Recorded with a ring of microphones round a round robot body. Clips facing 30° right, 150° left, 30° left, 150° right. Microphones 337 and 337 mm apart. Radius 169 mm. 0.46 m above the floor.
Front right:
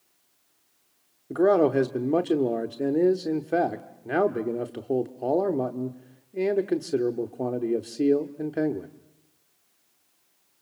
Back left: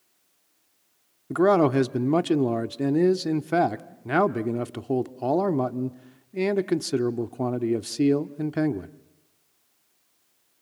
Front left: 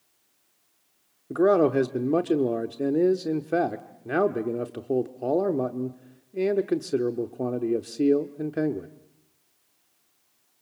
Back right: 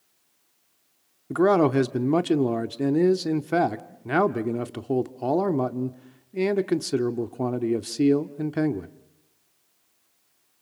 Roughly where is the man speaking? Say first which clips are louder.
Even, even; behind.